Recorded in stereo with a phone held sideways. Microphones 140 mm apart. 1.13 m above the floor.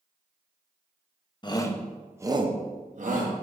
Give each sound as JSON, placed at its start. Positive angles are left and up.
{"t": 1.4, "sound": "a shout", "side_deg": 30, "distance_m": 0.9}